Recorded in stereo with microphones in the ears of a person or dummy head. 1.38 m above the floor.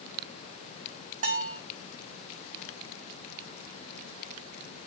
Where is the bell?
50° right (ahead or behind), 4 m.